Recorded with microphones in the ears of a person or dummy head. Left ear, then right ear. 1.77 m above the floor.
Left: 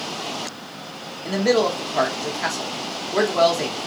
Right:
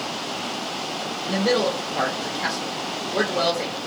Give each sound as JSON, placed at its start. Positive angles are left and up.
{"t": 1.2, "sound": "a man speaking", "side_deg": 45, "distance_m": 1.1}